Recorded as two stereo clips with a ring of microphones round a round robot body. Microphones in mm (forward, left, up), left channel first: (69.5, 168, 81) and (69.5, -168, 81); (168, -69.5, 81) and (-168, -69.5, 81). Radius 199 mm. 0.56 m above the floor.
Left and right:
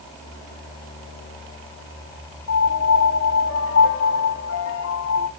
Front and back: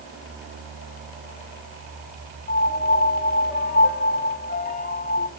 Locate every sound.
2.5 s a piano: 55° left, 1.3 m